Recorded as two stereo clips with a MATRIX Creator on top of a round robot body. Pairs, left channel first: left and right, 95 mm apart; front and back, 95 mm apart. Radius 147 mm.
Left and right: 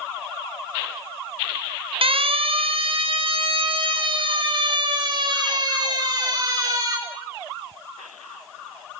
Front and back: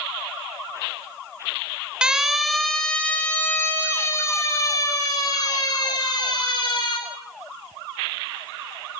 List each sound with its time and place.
2.0 s a siren: 100° right, 3.5 m; by 7.0 s 40° right, 7.5 m